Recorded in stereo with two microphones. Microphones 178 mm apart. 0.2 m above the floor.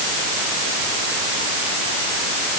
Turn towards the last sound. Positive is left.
No sound to turn to.